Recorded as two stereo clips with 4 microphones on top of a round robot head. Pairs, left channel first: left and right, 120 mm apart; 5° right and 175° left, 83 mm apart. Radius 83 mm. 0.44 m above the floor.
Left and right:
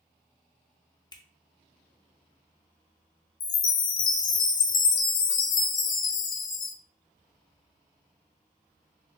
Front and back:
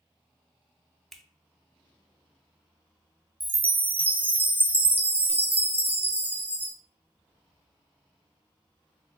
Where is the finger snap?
85° left, 0.6 m.